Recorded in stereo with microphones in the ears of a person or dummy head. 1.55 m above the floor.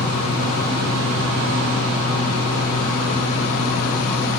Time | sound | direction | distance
0.0 | a fan | 55° left (ahead or behind) | 1.4 m